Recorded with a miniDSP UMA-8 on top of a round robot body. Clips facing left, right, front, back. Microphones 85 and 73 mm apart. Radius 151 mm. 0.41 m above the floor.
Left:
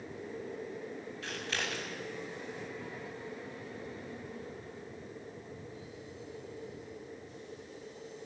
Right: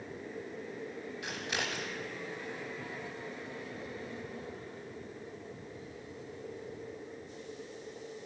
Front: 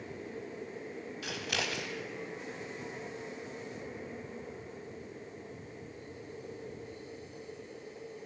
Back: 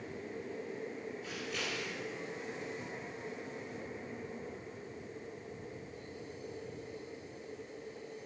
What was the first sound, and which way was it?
Scissors, 15° right.